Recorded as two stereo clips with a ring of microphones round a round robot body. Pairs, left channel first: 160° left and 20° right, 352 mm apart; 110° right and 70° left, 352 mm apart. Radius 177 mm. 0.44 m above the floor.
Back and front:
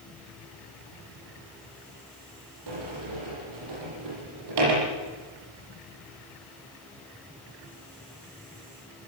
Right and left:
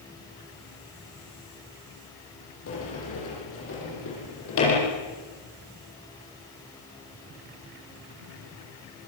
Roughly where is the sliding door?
Ahead right.